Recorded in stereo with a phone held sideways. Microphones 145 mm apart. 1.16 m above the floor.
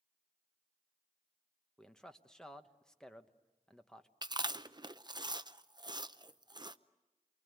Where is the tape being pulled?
I don't hear tape being pulled.